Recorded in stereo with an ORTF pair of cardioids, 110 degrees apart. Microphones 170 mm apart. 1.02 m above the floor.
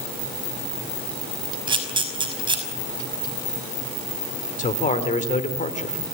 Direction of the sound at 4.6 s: 45° left.